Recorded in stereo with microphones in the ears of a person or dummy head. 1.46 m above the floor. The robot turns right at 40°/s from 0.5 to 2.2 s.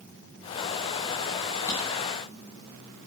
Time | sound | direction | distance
1.7 | a drawer | 15° left (ahead or behind) | 0.7 m